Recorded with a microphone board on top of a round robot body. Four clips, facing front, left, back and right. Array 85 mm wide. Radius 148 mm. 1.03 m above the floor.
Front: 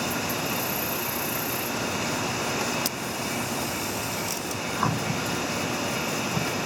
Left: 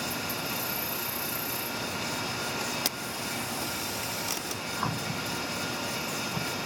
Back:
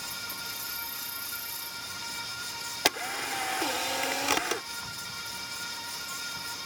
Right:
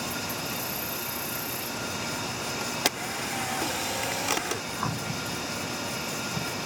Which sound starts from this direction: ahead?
An insect, at 0.0 s.